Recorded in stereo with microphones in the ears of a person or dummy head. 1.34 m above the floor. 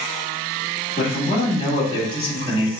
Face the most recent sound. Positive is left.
turn(degrees=30)  # may be behind; listen again after turning